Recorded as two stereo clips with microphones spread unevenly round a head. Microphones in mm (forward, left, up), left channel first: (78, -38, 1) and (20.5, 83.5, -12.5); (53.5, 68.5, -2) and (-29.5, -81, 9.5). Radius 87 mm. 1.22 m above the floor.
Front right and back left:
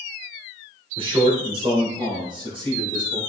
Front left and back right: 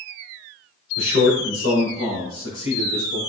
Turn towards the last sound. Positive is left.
turn(degrees=65)